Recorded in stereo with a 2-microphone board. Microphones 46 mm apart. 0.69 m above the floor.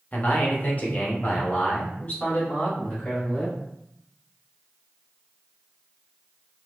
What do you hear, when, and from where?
0.1 s a man speaking: 40° left (ahead or behind), 0.9 m; by 3.6 s 35° left (ahead or behind), 2.5 m